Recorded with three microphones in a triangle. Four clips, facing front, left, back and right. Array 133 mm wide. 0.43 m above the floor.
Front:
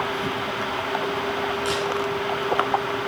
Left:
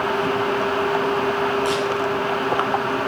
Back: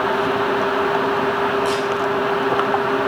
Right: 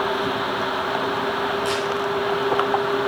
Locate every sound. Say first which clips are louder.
1.6 s a camera shutter: left 2 dB, back 5 dB; 10° left, 5.5 m